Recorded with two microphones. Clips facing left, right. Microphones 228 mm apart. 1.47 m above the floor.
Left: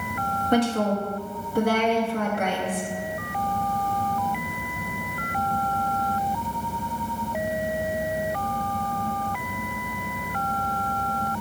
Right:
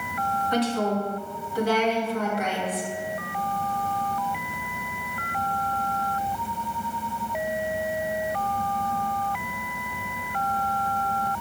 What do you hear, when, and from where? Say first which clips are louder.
0.5 s a woman speaking: left 3 dB; 55° left (ahead or behind), 3 m